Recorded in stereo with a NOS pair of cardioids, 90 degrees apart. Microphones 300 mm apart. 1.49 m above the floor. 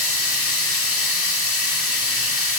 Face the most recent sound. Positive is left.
turn(degrees=50)